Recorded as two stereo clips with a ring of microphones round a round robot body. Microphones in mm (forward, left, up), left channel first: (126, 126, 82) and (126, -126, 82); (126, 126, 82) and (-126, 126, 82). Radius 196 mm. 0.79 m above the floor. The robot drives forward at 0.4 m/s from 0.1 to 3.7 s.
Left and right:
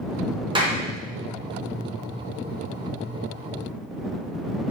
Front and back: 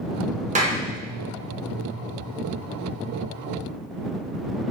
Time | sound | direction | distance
0.6 | a clap | 145° right | 0.7 m